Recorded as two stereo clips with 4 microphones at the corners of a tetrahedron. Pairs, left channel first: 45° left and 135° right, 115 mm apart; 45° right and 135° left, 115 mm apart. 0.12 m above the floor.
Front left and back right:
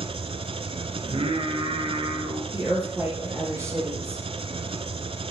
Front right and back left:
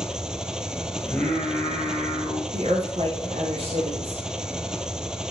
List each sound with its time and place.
0.0 s an engine running: 145° right, 1.1 m
1.0 s singing: 125° right, 3 m
2.5 s a woman speaking: 155° left, 4 m